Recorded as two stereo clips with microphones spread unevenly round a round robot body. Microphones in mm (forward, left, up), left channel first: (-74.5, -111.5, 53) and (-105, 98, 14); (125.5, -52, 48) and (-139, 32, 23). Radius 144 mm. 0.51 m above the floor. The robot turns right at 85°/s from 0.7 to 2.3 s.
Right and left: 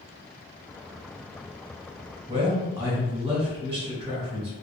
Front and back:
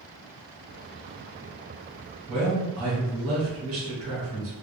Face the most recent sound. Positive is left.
turn(degrees=150)